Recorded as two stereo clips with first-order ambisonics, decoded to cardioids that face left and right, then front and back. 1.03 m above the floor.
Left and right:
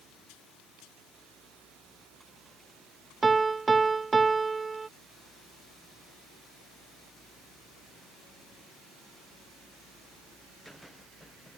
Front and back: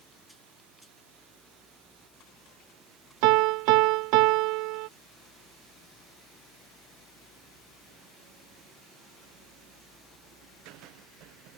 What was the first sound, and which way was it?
A piano, 170° right.